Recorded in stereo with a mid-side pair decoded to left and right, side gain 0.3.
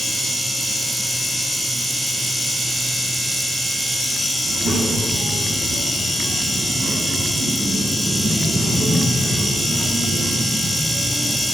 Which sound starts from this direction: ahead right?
A child speaking, at 4.4 s.